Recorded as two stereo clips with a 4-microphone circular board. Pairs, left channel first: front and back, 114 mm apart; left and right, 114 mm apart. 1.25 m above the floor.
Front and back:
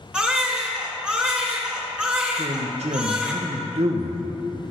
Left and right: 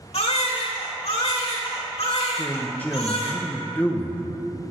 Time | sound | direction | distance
0.1 | a baby crying | 100° left | 1.7 m
2.4 | a man speaking | 165° left | 0.7 m